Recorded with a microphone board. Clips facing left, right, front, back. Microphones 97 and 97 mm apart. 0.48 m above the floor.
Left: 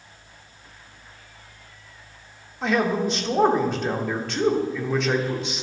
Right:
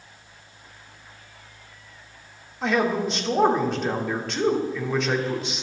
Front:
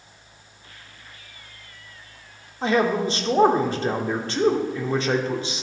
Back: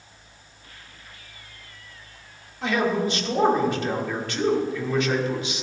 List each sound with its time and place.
2.6 s a man speaking: straight ahead, 0.9 m